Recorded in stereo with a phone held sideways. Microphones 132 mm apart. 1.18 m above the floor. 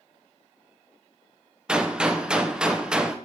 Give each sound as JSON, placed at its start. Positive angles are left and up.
{"t": 1.7, "sound": "a gunshot", "side_deg": -5, "distance_m": 0.6}